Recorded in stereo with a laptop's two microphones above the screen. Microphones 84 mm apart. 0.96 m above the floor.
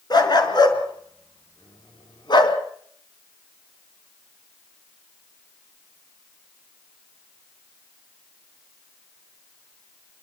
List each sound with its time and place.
0.1 s a dog barking: 55° left (ahead or behind), 5.5 m; by 2.6 s 65° left (ahead or behind), 3.5 m